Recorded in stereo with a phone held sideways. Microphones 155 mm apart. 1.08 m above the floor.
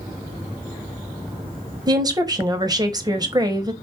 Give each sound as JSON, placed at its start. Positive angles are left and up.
{"t": 1.9, "sound": "a woman speaking", "side_deg": -25, "distance_m": 1.0}